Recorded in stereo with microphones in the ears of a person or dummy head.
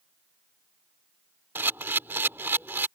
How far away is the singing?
I don't hear singing.